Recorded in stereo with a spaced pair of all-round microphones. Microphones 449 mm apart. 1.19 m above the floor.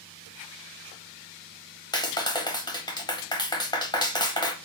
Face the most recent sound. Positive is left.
turn(degrees=10)  # may be behind; listen again after turning